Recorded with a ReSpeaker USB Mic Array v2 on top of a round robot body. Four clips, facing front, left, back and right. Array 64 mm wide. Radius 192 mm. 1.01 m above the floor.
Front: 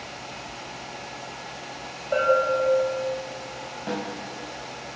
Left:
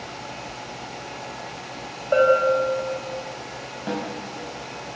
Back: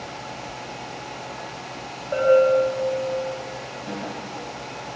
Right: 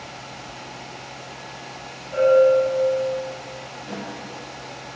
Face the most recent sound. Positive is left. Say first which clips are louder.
# left 6 dB, front 2 dB
turn(degrees=65)